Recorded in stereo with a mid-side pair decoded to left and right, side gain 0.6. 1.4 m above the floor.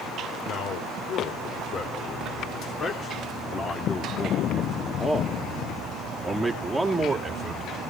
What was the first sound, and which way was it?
A man speaking, 50° left.